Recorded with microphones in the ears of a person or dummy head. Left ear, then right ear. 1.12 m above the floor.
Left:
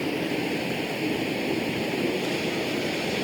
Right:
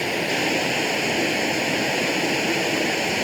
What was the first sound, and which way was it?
Running water, 50° right (ahead or behind).